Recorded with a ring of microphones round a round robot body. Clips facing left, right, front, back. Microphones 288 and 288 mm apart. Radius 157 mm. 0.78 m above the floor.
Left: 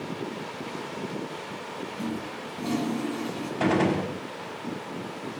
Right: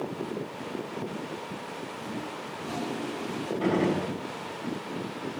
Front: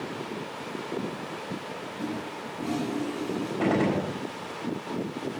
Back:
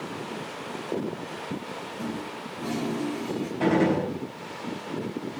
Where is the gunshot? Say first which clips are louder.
Left 2 dB, back 3 dB; 95° left, 5.5 m.